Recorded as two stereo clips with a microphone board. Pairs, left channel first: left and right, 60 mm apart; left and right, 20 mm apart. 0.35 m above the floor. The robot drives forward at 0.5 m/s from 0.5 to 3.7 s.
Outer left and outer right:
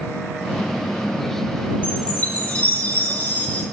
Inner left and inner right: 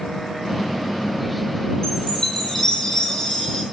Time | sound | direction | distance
1.8 | a chime | 20° left (ahead or behind) | 6 m